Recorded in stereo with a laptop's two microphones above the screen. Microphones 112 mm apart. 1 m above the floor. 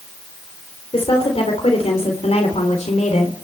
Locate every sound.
0.9 s a woman speaking: 60° left (ahead or behind), 3 m; by 3.4 s 85° left, 2.5 m